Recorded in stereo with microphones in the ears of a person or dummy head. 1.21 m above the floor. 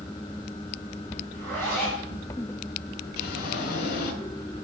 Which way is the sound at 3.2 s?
50° left (ahead or behind).